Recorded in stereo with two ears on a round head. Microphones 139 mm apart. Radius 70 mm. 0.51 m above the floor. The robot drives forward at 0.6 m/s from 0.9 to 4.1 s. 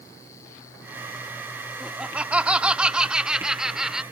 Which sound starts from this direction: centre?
Laughter, at 1.8 s.